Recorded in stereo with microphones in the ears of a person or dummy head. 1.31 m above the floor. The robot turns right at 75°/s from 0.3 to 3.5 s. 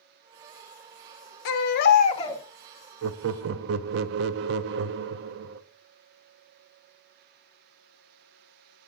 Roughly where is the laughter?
Right.